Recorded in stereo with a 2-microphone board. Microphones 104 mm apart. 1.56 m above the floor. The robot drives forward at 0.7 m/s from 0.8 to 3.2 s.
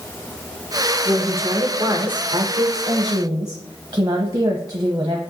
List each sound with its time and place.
1.1 s a woman speaking: 25° right (ahead or behind), 1.3 m; by 5.2 s 40° right (ahead or behind), 0.8 m